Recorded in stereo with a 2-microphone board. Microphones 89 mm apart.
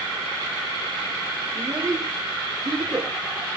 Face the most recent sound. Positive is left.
turn(degrees=-45)  # may be behind; listen again after turning